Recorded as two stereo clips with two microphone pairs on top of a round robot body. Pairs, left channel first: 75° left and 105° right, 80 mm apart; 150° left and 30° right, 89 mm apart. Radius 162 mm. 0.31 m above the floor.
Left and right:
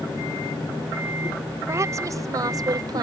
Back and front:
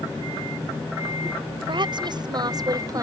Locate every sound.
1.7 s a woman speaking: 60° right; by 3.0 s 80° right